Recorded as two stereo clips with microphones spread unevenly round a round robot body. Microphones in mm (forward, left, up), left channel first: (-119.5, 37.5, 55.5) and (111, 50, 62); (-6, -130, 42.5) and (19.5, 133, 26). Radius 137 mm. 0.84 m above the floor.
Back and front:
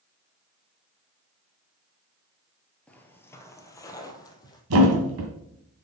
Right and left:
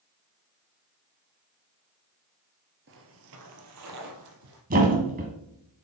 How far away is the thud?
About 1.6 m.